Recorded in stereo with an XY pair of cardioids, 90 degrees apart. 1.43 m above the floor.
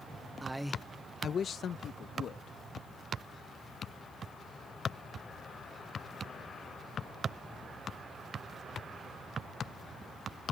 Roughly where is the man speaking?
Ahead right.